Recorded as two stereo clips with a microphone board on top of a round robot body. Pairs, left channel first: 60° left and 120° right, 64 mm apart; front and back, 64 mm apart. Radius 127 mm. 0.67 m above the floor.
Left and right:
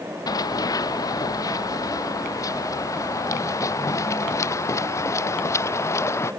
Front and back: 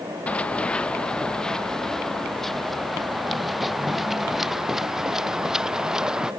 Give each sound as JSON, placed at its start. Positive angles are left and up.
{"t": 0.3, "sound": "running footsteps", "azimuth_deg": 70}